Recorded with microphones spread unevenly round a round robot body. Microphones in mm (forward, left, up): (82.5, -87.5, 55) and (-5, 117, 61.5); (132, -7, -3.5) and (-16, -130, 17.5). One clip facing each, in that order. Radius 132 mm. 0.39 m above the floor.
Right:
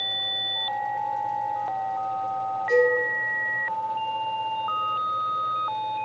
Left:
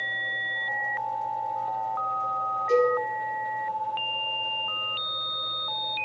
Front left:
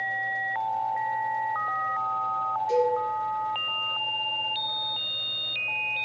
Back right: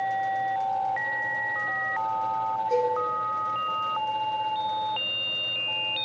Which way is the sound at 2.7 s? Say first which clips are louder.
Right 2 dB, front left 2 dB; 60° left.